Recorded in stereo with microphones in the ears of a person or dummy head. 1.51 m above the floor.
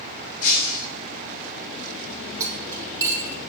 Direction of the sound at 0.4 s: 45° left (ahead or behind).